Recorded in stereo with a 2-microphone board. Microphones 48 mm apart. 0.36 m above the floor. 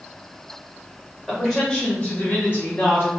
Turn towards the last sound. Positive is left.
turn(degrees=50)  # may be behind; listen again after turning